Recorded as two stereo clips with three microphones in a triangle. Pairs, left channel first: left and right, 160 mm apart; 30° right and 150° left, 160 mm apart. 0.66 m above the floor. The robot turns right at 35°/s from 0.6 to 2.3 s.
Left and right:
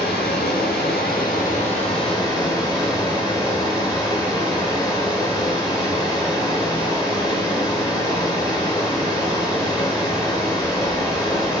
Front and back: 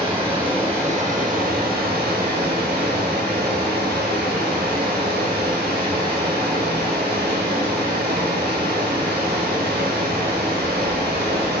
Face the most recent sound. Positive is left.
turn(degrees=155)